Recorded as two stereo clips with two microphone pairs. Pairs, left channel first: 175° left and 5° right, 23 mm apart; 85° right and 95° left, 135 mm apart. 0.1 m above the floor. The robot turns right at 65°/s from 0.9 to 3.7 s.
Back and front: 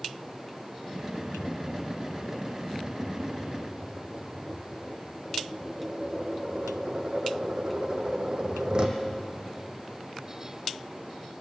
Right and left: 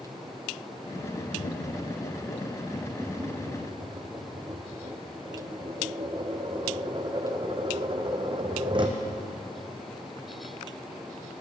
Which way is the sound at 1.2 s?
125° right.